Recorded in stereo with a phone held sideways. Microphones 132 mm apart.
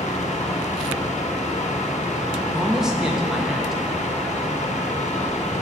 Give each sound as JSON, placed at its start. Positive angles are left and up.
{"t": 0.0, "sound": "a fan", "side_deg": 65, "distance_m": 0.9}
{"t": 2.5, "sound": "a man speaking", "side_deg": -5, "distance_m": 1.1}